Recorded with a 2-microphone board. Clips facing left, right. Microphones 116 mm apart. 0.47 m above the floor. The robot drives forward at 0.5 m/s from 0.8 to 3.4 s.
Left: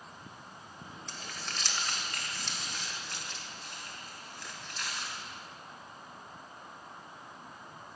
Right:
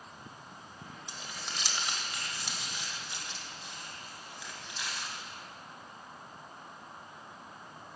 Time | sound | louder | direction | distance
1.1 | crumpling | left 1 dB | 15° right (ahead or behind) | 1.4 m